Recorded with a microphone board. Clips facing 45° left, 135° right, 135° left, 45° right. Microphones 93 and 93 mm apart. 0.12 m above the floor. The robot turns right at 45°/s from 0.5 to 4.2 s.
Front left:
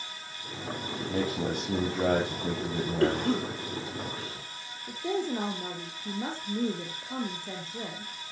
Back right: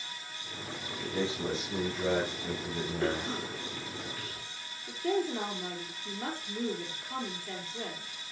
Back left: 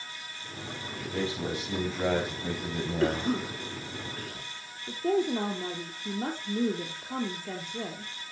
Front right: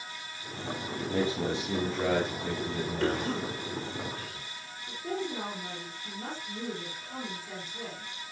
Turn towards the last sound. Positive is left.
turn(degrees=110)